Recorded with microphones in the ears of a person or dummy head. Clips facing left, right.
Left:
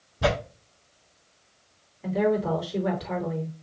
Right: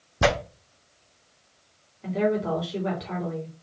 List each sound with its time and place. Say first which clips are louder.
0.2 s tearing paper: right 2 dB; 75° right (ahead or behind), 1.1 m
2.0 s a woman speaking: left 1 dB; centre (ahead or behind), 3 m